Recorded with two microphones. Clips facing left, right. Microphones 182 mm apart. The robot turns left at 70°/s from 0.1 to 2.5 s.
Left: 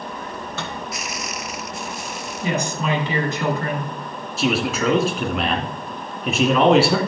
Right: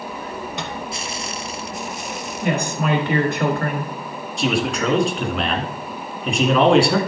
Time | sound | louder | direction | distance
0.6 | a microwave | right 1 dB | 20° right (ahead or behind) | 1.7 m
2.4 | a woman speaking | right 2 dB | 65° right (ahead or behind) | 3 m
4.4 | a man speaking | even | centre (ahead or behind) | 2 m